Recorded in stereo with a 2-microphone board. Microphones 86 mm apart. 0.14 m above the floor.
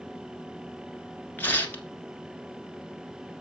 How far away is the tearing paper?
About 1.3 m.